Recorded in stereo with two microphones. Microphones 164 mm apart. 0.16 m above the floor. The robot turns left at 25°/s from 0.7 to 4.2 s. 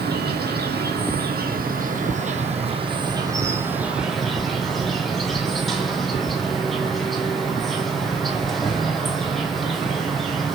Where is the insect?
95° right, 1.8 m; by 10.6 s straight behind, 1.8 m.